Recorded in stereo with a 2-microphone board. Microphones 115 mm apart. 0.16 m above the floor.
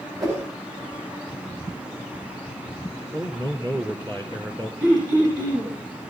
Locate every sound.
0.2 s a whoosh: 30° right (ahead or behind), 8.5 m
3.1 s a man speaking: 30° right (ahead or behind), 3 m
4.8 s throat clearing: 30° right (ahead or behind), 8.5 m